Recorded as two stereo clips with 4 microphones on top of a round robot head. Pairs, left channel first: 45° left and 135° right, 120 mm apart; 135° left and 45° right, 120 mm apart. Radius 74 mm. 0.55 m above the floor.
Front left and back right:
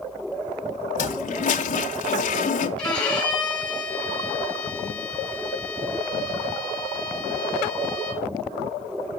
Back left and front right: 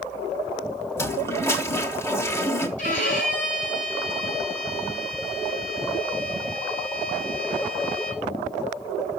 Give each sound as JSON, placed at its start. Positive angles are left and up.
{"t": 1.0, "sound": "a toilet flushing", "azimuth_deg": 65, "distance_m": 1.0}
{"t": 2.8, "sound": "a violin", "azimuth_deg": 130, "distance_m": 4.0}